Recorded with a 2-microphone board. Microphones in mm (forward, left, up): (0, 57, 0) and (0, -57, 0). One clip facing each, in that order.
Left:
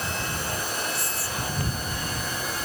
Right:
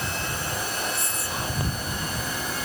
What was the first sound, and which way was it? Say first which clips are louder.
Whispering: right 1 dB; 25° right (ahead or behind).